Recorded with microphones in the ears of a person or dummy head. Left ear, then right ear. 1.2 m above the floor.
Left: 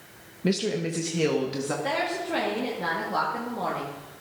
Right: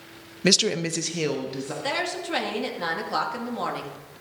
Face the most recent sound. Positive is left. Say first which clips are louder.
# right 2 dB
turn(degrees=-45)  # may be behind; listen again after turning